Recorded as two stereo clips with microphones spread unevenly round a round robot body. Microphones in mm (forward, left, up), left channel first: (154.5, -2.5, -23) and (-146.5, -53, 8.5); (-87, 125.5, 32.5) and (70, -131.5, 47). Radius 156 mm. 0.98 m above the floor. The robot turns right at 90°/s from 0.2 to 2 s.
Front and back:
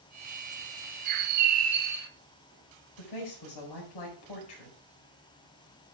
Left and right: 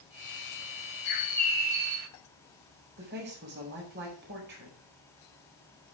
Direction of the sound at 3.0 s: Straight ahead.